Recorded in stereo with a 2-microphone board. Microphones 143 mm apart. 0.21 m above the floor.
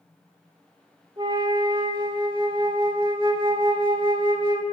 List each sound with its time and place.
1.2 s a flute: 35° right (ahead or behind), 0.6 m